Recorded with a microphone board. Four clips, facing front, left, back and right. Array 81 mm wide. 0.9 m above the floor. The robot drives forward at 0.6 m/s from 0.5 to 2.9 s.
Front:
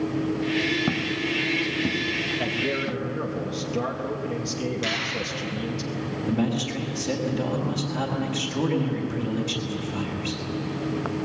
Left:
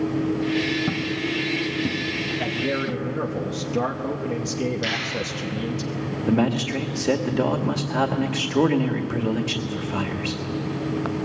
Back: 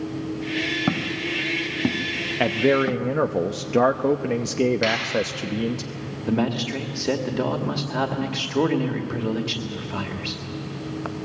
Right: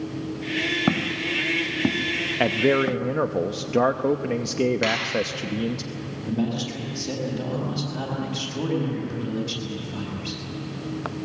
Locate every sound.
0.9 s footsteps: 115° right, 1.3 m; by 3.1 s 125° right, 3 m
2.4 s a man speaking: 125° right, 0.5 m; by 5.8 s 145° right, 0.7 m
4.8 s a finger snap: 115° right, 5.5 m
6.3 s a man speaking: 120° left, 2 m